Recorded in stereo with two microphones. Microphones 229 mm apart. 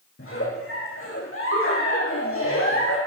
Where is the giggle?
70° left (ahead or behind), 8.5 m.